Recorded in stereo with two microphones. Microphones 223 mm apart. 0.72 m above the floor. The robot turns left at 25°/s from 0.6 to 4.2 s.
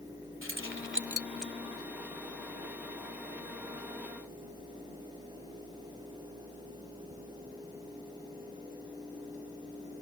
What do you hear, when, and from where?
0.4 s keys jangling: 65° right (ahead or behind); by 1.5 s 40° right (ahead or behind)